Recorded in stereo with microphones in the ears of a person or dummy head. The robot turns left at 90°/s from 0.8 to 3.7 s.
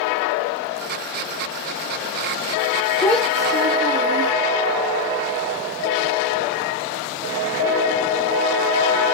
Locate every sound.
3.0 s a child speaking: 10° left, 0.8 m; by 4.3 s 50° right, 0.8 m